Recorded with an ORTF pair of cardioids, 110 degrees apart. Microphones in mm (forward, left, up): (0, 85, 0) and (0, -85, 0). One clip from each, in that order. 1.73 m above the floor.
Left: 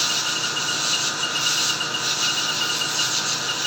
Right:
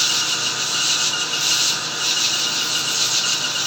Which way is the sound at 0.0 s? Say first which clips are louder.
Right 3 dB; 25° right.